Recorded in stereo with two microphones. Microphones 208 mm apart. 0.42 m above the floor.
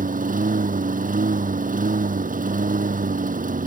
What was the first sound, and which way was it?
A lawn mower, 40° right (ahead or behind).